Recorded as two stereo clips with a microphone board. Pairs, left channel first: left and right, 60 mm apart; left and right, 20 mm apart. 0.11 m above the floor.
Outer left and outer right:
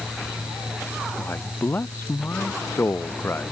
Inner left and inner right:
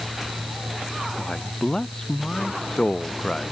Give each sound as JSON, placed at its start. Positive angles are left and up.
{"t": 1.2, "sound": "a man speaking", "side_deg": 40}